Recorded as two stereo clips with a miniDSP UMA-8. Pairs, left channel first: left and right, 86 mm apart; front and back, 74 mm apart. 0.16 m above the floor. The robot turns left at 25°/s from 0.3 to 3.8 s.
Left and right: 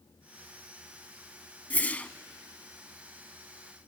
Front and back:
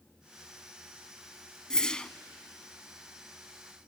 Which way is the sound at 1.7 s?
60° left.